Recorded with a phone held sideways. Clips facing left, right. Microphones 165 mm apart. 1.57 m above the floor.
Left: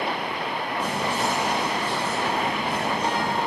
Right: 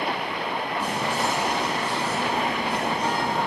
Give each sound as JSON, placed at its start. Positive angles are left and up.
{"t": 0.8, "sound": "whispering", "side_deg": -40, "distance_m": 1.3}